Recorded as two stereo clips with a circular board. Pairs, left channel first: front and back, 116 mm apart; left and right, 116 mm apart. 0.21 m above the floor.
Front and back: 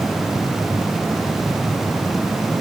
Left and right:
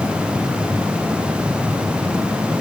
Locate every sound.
Only background noise.